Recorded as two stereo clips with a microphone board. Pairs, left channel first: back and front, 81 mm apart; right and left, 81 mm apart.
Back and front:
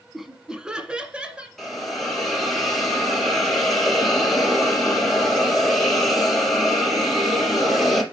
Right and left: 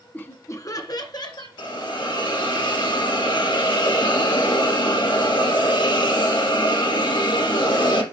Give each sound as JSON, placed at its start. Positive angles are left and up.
{"t": 0.1, "sound": "laughter", "azimuth_deg": -85, "distance_m": 1.0}
{"t": 1.6, "sound": "a hiss", "azimuth_deg": -95, "distance_m": 3.5}